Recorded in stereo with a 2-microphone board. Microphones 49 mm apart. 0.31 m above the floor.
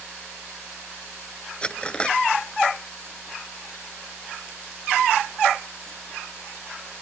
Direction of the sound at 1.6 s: 20° left (ahead or behind).